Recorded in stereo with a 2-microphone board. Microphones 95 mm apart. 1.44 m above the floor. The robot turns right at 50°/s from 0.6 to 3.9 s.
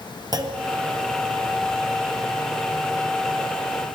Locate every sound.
0.3 s a clunk: 45° right (ahead or behind), 0.6 m